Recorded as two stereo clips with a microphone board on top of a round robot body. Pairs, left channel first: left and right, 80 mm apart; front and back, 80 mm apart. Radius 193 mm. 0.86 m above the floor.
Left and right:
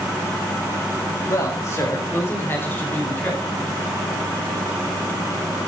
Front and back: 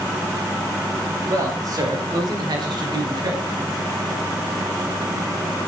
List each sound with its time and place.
1.3 s a man speaking: 135° left, 4.5 m; by 3.4 s 160° left, 7 m